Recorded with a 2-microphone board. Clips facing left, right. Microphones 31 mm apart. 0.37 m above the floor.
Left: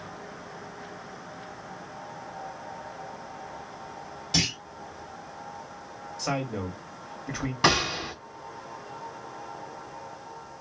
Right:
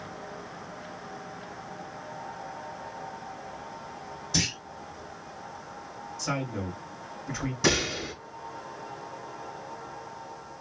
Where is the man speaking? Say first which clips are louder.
Left 2 dB; 50° left (ahead or behind), 1.9 m.